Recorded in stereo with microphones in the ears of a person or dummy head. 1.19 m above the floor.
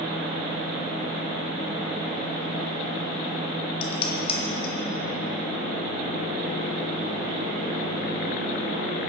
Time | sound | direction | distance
3.8 | dishes clattering | 35° left (ahead or behind) | 1.3 m